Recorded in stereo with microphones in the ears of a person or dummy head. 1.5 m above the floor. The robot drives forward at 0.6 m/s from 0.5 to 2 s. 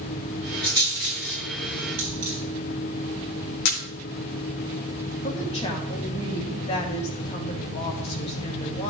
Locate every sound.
0.6 s a rattle: 25° right (ahead or behind), 4.5 m
2.0 s a dropped coin: 65° right (ahead or behind), 4 m
3.6 s a camera shutter: 65° left (ahead or behind), 1.7 m
5.2 s a woman speaking: 35° left (ahead or behind), 2 m